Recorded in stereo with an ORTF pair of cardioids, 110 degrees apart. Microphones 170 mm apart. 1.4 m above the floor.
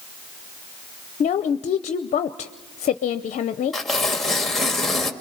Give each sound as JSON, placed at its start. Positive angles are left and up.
{"t": 1.2, "sound": "a woman speaking", "azimuth_deg": 45, "distance_m": 0.7}
{"t": 3.7, "sound": "tearing paper", "azimuth_deg": 0, "distance_m": 1.7}